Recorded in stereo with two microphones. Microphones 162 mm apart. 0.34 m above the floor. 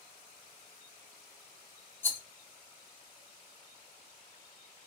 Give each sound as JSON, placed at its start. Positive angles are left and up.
{"t": 2.0, "sound": "a rattle", "side_deg": 10, "distance_m": 0.5}